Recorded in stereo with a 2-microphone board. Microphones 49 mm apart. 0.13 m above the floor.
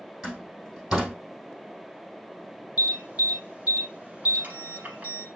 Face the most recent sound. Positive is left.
turn(degrees=-35)  # may be behind; listen again after turning